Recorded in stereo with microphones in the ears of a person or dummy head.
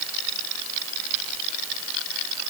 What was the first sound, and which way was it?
Only background noise.